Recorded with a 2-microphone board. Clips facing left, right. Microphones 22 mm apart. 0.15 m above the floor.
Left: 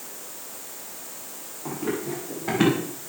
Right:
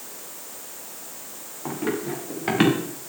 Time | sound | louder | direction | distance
1.6 | running footsteps | right 2 dB | 85° right | 7 m